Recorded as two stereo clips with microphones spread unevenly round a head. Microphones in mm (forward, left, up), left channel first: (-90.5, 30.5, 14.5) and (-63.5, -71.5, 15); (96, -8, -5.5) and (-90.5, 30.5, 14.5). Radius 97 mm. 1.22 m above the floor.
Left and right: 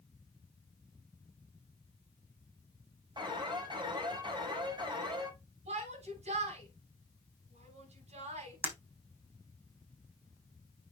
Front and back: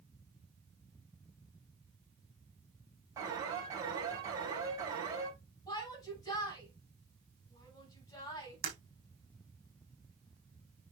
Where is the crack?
No crack in this recording.